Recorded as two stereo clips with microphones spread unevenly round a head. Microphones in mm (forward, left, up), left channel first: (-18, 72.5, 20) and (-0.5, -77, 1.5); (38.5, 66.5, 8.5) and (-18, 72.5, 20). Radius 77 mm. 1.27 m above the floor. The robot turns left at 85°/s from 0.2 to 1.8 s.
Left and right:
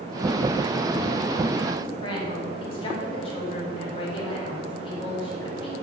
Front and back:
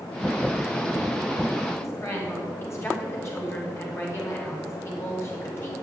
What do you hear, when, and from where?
1.8 s a woman speaking: 40° left, 5 m; by 5.7 s 35° left, 5 m